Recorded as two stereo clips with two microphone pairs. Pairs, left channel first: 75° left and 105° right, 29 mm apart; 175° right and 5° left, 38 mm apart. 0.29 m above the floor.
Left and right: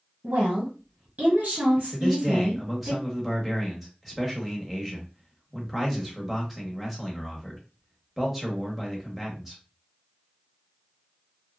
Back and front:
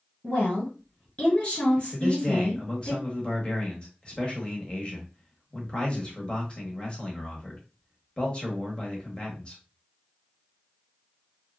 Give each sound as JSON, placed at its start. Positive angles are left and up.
{"t": 0.2, "sound": "a woman speaking", "azimuth_deg": -115, "distance_m": 1.6}
{"t": 1.9, "sound": "a man speaking", "azimuth_deg": 170, "distance_m": 0.9}